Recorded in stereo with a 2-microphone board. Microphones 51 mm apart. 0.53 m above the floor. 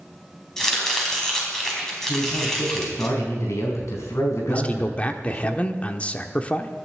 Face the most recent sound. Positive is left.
turn(degrees=25)  # may be behind; listen again after turning